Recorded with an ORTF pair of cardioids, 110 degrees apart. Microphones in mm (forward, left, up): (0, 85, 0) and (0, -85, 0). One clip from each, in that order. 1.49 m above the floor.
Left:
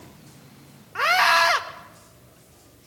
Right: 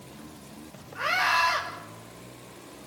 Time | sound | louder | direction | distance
0.9 | a scream | left 6 dB | 60° left | 2.5 m